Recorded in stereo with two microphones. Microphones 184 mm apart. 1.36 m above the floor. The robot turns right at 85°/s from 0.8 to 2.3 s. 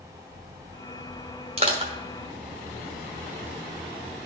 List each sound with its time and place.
1.6 s crushing: 30° right (ahead or behind), 1.1 m; by 1.9 s 25° right (ahead or behind), 1.1 m